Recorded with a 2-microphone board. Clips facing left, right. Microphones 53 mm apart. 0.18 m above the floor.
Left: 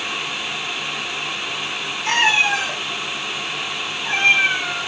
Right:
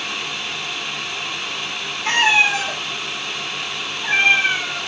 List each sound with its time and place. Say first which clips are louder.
2.0 s a cat meowing: right 1 dB; 30° right (ahead or behind), 6.5 m; by 4.8 s 25° right (ahead or behind), 8 m